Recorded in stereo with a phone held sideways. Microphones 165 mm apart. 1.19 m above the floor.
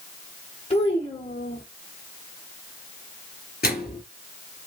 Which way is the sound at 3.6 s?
70° left (ahead or behind).